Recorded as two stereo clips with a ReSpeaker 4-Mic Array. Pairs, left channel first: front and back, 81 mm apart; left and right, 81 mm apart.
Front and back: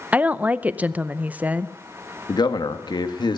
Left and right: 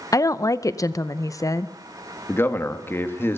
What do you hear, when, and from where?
0.1 s a woman speaking: 115° left, 0.6 m
2.3 s a man speaking: 25° left, 1.6 m